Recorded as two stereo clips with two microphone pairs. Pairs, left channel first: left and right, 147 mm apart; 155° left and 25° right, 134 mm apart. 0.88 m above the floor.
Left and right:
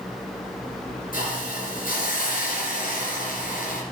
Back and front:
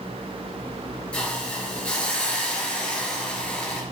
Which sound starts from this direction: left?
A hiss, at 1.1 s.